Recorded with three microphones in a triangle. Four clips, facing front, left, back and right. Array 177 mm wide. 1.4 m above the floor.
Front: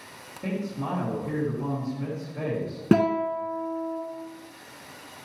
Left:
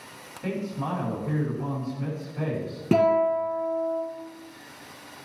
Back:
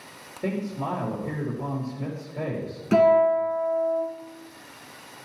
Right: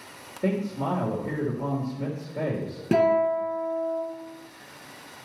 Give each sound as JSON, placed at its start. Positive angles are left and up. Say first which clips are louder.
{"t": 0.4, "sound": "a man speaking", "louder": "right 4 dB, back 2 dB", "azimuth_deg": -105, "distance_m": 3.0}
{"t": 2.9, "sound": "a guitar", "louder": "even, back 5 dB", "azimuth_deg": 0, "distance_m": 3.0}